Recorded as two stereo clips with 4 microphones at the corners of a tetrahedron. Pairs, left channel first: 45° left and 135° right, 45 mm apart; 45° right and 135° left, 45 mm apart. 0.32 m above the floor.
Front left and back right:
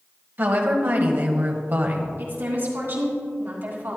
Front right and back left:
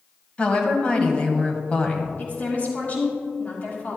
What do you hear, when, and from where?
0.4 s a woman speaking: 105° right, 1.3 m
2.2 s a woman speaking: 100° right, 3 m